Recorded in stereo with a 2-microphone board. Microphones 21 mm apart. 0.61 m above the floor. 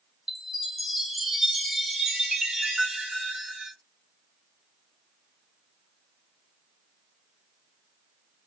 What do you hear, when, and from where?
0.3 s a chime: 20° right (ahead or behind), 0.9 m